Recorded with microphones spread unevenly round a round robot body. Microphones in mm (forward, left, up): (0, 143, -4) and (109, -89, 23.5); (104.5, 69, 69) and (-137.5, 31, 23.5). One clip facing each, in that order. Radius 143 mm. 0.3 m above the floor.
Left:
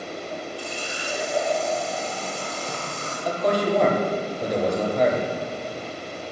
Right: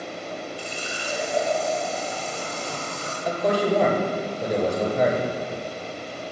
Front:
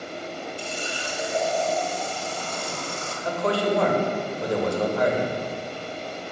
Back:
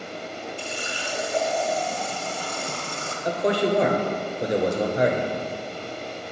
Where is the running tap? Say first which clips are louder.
Left 1 dB, front 1 dB; 145° right, 1.8 m.